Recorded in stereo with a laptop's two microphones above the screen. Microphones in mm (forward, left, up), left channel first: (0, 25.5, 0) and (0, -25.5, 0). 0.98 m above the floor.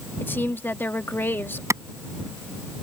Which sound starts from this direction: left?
A woman speaking, at 0.2 s.